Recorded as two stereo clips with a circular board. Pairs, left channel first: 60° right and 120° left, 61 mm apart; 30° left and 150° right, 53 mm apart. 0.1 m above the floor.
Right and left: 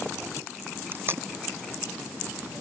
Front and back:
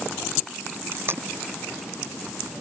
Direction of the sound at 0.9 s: 170° left.